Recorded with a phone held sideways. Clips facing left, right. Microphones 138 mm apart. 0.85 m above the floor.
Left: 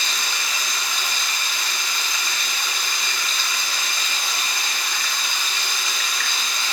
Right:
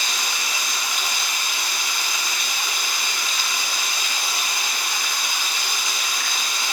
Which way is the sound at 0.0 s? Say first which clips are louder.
Even; 15° right (ahead or behind).